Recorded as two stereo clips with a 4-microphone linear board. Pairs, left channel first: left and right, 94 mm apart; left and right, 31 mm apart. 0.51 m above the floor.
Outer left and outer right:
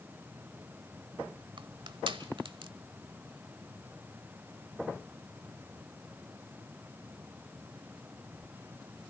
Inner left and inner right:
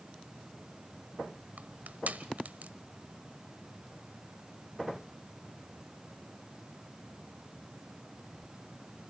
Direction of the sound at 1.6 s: 60° right (ahead or behind).